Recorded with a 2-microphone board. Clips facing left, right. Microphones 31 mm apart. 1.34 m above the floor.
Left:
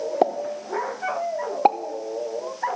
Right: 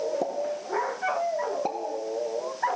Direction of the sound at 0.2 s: 55° left (ahead or behind).